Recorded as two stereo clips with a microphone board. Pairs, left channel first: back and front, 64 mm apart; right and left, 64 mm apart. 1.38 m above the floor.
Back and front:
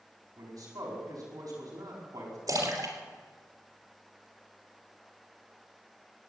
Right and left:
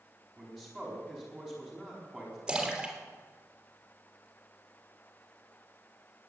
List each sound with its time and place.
0.4 s a man speaking: straight ahead, 4.5 m
2.5 s a splash: 10° left, 3 m